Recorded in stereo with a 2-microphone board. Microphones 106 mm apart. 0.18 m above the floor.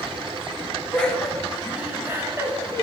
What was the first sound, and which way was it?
Laughter, 10° left (ahead or behind).